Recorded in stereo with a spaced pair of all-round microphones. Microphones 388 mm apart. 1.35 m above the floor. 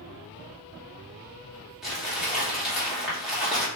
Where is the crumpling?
Centre (ahead or behind), 3.5 m.